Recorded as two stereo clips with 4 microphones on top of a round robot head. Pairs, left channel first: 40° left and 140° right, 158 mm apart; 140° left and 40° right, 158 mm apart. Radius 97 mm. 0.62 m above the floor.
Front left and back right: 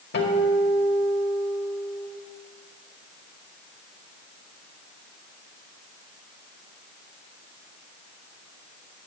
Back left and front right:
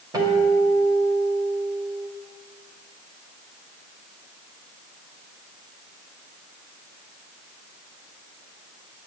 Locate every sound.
0.1 s a guitar: 30° left, 2 m